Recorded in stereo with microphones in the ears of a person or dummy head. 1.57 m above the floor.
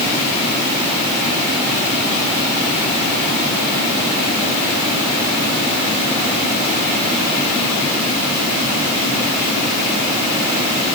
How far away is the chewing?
No chewing in this recording.